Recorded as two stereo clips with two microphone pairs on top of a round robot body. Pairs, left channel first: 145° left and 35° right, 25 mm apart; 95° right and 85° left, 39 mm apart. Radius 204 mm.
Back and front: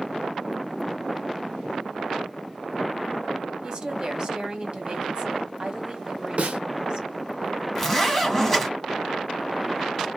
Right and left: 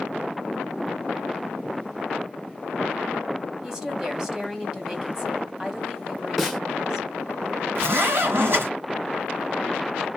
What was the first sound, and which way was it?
A woman speaking, 15° left.